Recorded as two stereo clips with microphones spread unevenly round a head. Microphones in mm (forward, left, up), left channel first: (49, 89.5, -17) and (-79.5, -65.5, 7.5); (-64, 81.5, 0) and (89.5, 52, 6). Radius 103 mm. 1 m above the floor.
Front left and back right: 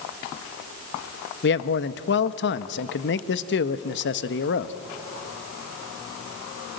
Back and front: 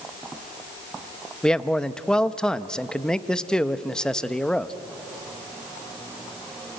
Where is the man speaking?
85° left, 0.8 m.